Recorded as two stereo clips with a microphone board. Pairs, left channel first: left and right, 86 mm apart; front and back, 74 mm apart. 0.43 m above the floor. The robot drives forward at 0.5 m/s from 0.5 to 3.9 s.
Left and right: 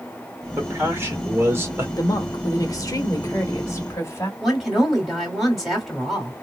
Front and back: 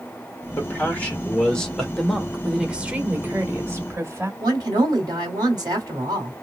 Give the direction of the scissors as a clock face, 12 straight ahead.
I don't hear scissors.